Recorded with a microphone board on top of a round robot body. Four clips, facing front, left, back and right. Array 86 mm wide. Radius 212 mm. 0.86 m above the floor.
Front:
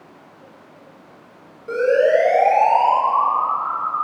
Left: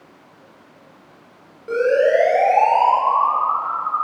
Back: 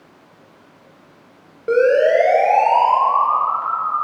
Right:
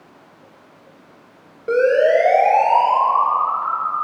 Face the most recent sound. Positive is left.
turn(degrees=-170)